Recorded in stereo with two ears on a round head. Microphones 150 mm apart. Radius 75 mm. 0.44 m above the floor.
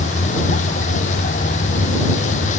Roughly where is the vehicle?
Left.